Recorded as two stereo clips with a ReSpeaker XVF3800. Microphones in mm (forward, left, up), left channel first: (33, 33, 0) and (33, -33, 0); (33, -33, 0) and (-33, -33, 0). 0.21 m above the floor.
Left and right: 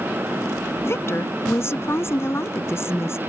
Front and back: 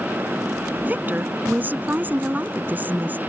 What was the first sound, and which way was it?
A woman speaking, 125° left.